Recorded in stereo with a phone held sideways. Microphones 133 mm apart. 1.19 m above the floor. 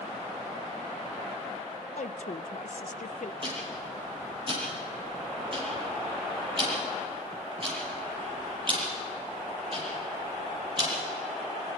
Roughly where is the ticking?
Right.